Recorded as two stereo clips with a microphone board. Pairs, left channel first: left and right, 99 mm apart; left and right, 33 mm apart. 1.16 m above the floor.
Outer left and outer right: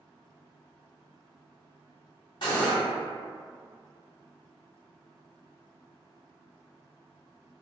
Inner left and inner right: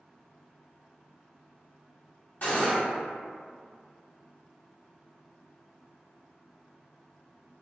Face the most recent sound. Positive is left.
turn(degrees=55)  # may be behind; listen again after turning